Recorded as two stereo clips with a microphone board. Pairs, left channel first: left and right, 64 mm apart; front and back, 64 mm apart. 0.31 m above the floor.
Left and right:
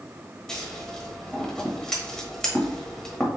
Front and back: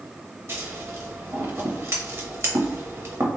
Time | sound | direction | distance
0.5 | scissors | 165° left | 1.2 m